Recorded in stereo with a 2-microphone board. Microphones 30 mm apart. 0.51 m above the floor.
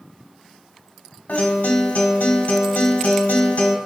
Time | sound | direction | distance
1.3 | a guitar | 80° left | 1.0 m